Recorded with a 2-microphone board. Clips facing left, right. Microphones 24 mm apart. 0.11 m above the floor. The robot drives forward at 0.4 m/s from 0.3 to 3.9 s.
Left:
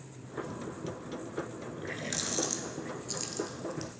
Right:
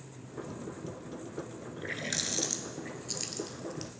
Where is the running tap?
20° right (ahead or behind), 0.8 m; by 3.9 s 15° right (ahead or behind), 1.4 m.